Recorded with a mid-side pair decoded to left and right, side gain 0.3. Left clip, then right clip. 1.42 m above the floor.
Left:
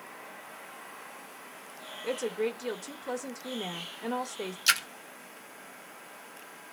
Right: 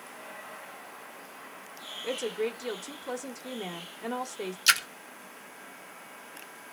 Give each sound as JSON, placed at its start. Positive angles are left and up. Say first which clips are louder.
{"t": 2.0, "sound": "a woman speaking", "louder": "even", "azimuth_deg": 10, "distance_m": 1.3}
{"t": 4.7, "sound": "a splash", "louder": "right 2 dB", "azimuth_deg": -15, "distance_m": 0.6}